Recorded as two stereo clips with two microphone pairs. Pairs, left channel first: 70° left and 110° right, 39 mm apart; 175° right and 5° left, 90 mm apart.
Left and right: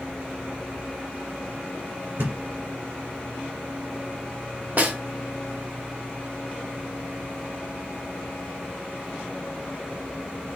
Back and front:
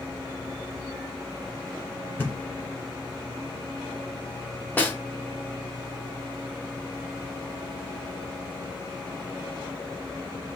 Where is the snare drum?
115° right, 0.9 m.